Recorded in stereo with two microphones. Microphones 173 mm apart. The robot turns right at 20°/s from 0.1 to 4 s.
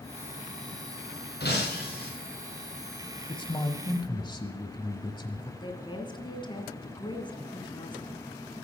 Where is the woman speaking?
25° left (ahead or behind), 2 m.